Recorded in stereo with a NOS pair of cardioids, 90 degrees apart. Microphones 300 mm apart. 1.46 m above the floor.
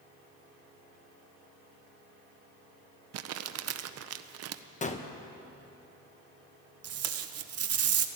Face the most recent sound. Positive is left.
turn(degrees=-55)